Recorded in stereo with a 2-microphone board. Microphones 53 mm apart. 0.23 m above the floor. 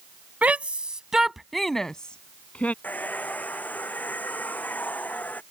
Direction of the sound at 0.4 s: 30° right (ahead or behind).